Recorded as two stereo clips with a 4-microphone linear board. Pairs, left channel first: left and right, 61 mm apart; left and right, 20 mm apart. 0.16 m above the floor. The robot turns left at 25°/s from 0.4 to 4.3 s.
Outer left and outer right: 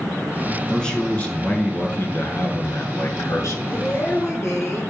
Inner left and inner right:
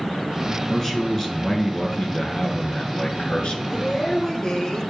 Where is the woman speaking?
55° left (ahead or behind), 1.8 m; by 4.8 s 50° left (ahead or behind), 1.8 m.